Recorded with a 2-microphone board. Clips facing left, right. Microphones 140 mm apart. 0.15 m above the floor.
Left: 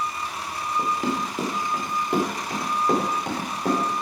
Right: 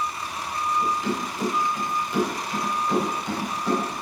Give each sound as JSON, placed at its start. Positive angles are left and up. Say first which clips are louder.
{"t": 0.8, "sound": "running footsteps", "louder": "left 4 dB", "side_deg": 60, "distance_m": 4.0}